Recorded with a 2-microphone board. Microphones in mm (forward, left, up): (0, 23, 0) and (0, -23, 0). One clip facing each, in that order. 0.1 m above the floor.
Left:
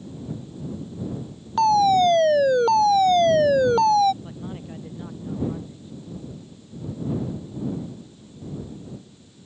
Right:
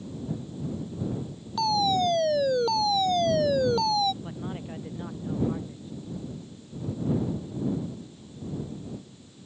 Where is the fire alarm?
50° left (ahead or behind).